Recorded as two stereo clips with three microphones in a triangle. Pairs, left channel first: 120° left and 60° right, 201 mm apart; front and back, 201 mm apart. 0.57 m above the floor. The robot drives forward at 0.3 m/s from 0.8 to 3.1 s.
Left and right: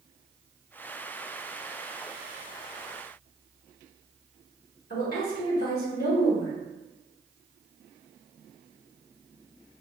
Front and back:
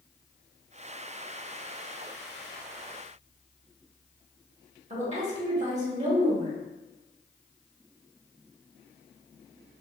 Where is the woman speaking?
135° left, 1.2 m.